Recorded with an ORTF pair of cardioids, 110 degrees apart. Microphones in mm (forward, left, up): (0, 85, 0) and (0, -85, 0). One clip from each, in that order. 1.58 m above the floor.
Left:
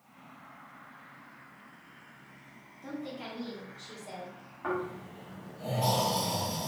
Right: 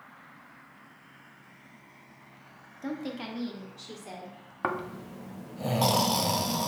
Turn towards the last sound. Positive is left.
turn(degrees=-65)